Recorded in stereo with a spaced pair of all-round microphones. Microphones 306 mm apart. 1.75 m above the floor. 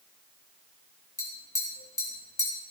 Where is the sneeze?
I don't hear a sneeze.